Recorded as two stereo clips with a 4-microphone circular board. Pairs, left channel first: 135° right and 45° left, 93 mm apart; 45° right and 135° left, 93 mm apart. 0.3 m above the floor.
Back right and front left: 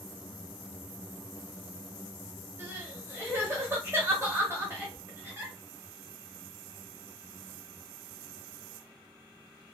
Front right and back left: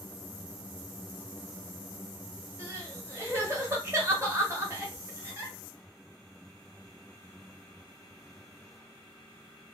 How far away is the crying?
About 1.1 m.